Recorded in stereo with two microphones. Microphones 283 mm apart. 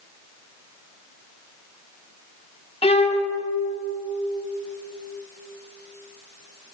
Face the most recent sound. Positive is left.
turn(degrees=20)  # may be behind; listen again after turning